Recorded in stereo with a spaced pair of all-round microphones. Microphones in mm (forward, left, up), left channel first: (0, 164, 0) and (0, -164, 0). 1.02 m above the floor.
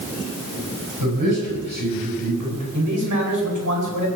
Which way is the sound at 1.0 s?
85° right.